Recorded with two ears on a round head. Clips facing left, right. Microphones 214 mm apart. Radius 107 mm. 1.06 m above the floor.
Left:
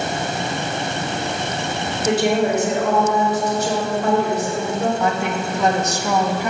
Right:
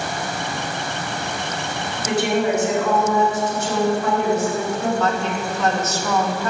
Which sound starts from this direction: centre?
A woman speaking, at 5.0 s.